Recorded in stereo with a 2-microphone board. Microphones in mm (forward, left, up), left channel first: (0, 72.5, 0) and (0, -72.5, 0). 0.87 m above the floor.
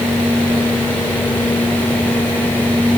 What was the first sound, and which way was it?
Only background noise.